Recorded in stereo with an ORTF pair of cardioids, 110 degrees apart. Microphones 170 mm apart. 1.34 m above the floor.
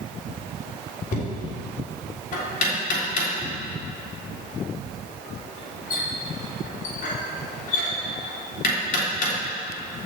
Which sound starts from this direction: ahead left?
Knocking, at 1.1 s.